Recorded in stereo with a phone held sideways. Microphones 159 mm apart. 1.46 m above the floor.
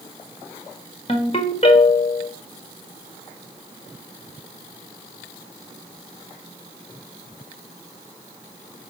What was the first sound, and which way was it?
A ringtone, 40° left (ahead or behind).